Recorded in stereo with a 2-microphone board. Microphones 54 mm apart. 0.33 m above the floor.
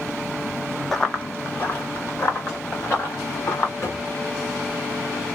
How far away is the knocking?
About 2 m.